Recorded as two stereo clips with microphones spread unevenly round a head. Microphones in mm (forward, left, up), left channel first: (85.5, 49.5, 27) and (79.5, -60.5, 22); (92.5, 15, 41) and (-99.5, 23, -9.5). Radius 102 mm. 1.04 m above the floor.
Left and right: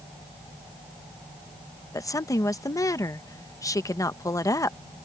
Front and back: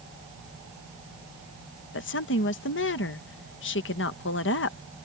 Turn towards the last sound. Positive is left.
turn(degrees=25)